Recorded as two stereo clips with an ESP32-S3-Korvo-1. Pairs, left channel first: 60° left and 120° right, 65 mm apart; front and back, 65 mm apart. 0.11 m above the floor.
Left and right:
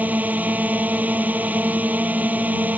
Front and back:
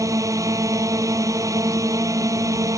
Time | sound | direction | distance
0.0 | a drone | straight behind | ?